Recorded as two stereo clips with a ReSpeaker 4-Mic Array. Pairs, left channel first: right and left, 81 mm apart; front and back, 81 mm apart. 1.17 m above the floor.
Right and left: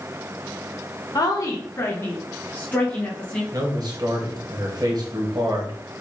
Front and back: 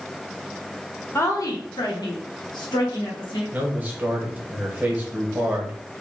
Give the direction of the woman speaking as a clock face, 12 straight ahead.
2 o'clock.